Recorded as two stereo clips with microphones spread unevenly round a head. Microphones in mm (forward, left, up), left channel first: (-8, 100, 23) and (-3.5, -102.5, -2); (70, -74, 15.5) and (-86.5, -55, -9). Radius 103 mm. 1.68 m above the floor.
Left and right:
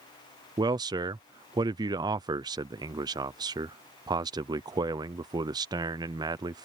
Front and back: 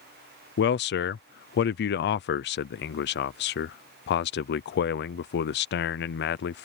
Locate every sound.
0.6 s a man speaking: 20° right